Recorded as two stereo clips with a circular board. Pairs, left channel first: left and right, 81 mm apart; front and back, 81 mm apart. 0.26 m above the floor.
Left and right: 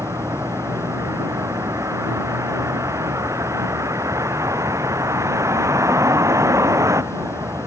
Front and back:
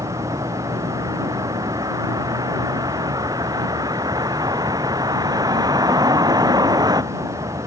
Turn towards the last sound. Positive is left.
turn(degrees=-140)